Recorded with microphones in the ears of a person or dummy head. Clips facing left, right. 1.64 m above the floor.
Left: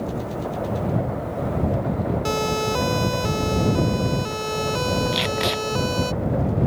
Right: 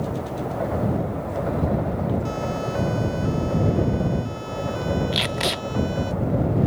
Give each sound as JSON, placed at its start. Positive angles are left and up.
{"t": 2.2, "sound": "a siren", "side_deg": 85}
{"t": 5.1, "sound": "tape being pulled", "side_deg": 0}